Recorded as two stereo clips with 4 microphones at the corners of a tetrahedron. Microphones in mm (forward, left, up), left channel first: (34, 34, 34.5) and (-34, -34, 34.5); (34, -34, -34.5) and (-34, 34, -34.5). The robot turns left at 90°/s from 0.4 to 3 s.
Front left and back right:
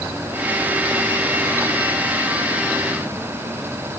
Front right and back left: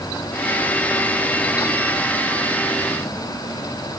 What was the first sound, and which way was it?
Only background noise.